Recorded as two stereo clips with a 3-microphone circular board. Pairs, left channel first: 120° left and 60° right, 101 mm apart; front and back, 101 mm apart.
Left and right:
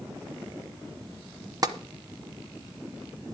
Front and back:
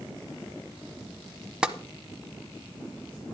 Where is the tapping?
100° right, 0.9 m.